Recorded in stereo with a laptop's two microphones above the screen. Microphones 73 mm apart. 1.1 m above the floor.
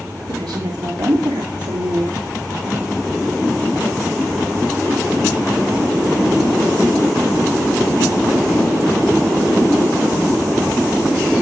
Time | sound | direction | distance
0.3 | a woman speaking | 75° right (ahead or behind) | 2.5 m